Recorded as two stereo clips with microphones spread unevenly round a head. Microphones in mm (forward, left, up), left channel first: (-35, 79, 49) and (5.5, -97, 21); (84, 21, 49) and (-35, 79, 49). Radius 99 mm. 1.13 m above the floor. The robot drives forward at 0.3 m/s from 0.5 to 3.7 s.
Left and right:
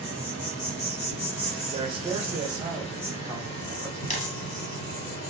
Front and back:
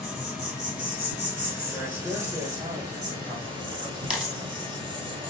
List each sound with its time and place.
0.0 s an insect: 75° left, 1.9 m; by 5.3 s 105° left, 1.9 m
1.7 s a man speaking: 125° right, 1.1 m; by 4.0 s 145° right, 1.5 m
4.1 s a dropped coin: 70° left, 0.6 m